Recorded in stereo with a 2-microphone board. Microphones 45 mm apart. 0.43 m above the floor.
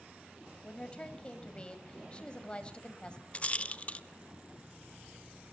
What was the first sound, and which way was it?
A woman speaking, 25° left (ahead or behind).